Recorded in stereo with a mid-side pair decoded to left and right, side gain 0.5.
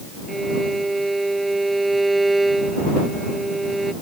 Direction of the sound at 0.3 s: 10° right.